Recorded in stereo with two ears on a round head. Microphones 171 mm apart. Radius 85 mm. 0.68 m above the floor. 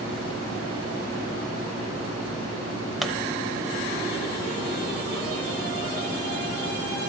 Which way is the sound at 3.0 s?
Centre (ahead or behind).